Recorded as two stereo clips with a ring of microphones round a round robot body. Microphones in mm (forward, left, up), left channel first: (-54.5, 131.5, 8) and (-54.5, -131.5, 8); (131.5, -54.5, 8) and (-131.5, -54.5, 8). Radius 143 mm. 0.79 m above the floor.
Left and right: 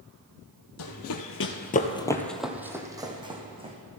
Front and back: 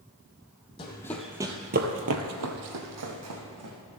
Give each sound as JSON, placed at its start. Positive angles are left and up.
{"t": 0.8, "sound": "running footsteps", "azimuth_deg": 70, "distance_m": 1.5}